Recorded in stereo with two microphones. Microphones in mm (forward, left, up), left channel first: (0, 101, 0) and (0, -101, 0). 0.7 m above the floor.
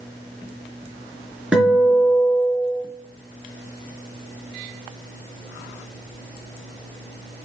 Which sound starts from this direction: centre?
A guitar, at 1.5 s.